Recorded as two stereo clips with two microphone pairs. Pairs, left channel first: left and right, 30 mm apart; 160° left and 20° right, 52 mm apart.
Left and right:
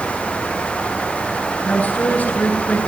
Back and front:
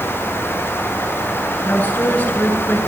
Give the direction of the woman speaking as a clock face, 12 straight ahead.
9 o'clock.